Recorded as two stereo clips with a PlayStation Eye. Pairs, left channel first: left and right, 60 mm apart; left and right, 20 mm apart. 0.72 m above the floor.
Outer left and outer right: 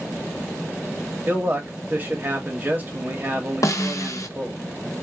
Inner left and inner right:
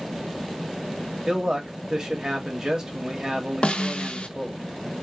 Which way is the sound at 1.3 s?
30° right (ahead or behind).